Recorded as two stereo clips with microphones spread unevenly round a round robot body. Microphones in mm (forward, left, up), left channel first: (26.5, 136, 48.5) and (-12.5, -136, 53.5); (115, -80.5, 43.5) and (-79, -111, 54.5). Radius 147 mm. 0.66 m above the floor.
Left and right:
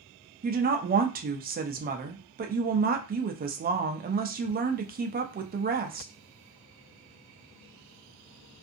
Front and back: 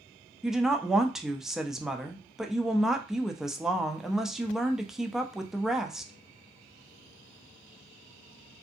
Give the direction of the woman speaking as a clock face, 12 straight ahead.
3 o'clock.